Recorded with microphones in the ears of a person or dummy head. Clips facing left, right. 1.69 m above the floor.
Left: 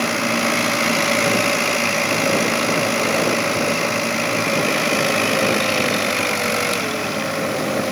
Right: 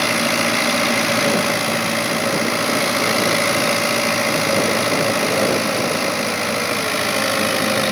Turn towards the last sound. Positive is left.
No sound to turn to.